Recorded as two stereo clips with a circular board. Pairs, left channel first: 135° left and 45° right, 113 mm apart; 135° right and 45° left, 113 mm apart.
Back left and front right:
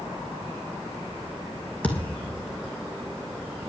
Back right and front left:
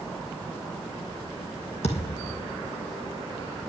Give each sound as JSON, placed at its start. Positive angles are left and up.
{"t": 1.8, "sound": "a thud", "azimuth_deg": -145, "distance_m": 3.5}